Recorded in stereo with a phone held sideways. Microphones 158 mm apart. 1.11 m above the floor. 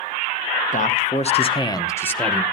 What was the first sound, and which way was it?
A man speaking, 55° left (ahead or behind).